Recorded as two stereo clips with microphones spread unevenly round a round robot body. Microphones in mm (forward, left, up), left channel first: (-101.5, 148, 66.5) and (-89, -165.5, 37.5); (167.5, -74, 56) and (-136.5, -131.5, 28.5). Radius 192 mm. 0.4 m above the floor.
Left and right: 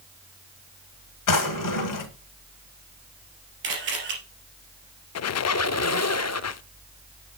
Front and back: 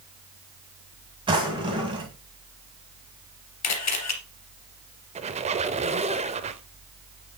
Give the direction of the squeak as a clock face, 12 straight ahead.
8 o'clock.